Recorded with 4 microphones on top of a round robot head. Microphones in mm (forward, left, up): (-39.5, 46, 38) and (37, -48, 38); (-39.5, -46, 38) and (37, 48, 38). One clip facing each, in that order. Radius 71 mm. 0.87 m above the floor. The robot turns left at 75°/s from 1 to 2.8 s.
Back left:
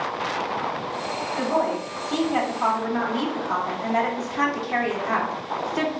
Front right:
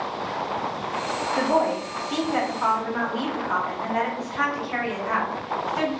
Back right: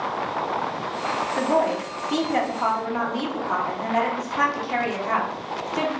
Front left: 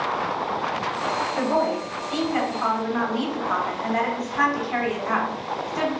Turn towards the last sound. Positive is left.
turn(degrees=170)